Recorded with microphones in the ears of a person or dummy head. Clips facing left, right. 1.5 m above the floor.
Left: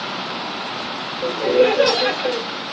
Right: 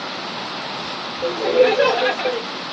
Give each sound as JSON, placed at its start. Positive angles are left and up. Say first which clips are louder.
{"t": 1.2, "sound": "laughter", "louder": "even", "side_deg": -5, "distance_m": 1.3}